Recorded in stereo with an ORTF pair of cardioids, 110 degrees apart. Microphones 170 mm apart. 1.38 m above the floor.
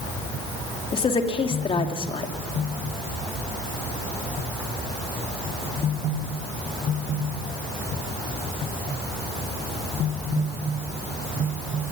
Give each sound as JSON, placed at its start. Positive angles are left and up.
{"t": 0.9, "sound": "a woman speaking", "azimuth_deg": 35, "distance_m": 3.0}